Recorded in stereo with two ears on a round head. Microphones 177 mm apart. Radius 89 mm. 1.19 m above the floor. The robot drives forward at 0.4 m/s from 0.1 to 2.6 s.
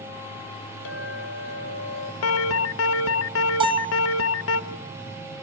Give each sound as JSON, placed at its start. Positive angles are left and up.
{"t": 0.8, "sound": "a clink", "side_deg": 60, "distance_m": 1.0}
{"t": 2.2, "sound": "an alarm", "side_deg": 90, "distance_m": 1.0}
{"t": 3.6, "sound": "a bell", "side_deg": -25, "distance_m": 0.5}